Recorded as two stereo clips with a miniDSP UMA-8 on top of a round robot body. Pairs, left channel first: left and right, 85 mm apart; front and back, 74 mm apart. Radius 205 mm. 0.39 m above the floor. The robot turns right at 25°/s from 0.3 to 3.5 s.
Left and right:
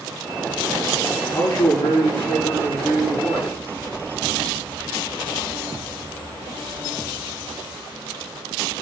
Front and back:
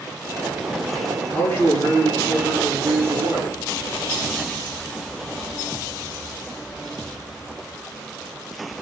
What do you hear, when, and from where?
1.3 s a man speaking: 60° left, 6 m; by 3.6 s 115° left, 6 m